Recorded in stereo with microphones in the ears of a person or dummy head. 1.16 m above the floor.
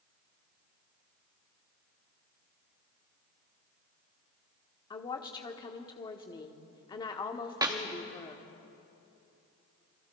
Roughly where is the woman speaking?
Left.